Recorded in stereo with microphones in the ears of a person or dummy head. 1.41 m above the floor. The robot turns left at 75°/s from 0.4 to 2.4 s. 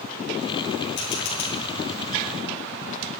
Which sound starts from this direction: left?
A camera shutter, at 1.0 s.